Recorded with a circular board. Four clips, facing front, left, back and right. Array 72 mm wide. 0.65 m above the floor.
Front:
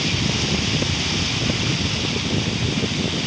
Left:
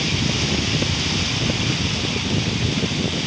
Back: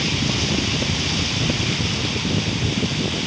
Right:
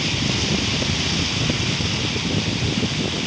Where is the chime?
I don't hear a chime.